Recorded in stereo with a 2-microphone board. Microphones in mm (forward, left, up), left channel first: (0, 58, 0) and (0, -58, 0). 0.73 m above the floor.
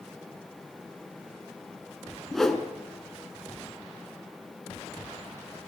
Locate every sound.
2.3 s a whoosh: 5° left (ahead or behind), 2 m